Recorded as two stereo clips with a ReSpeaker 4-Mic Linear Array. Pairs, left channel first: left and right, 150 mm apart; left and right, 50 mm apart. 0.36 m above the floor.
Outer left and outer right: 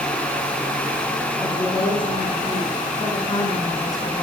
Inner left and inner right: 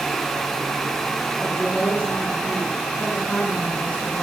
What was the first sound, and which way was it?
A woman speaking, 35° left (ahead or behind).